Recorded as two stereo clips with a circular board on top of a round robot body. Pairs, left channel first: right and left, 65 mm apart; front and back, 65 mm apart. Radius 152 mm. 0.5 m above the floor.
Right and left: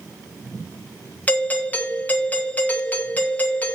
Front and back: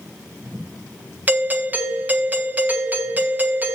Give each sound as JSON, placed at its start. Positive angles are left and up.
{"t": 1.3, "sound": "a doorbell", "azimuth_deg": -135, "distance_m": 1.4}